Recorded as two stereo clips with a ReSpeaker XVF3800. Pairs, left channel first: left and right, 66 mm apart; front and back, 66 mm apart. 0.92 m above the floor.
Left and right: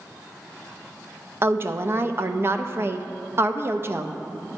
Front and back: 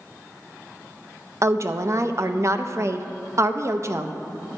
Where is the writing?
I don't hear writing.